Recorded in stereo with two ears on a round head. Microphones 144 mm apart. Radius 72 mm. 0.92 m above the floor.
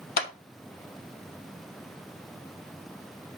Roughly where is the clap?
Left.